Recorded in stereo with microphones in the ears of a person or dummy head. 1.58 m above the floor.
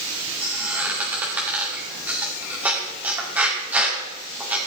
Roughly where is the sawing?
I don't hear sawing.